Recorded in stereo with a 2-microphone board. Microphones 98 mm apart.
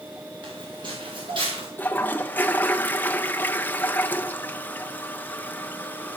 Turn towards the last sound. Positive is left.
turn(degrees=15)  # may be behind; listen again after turning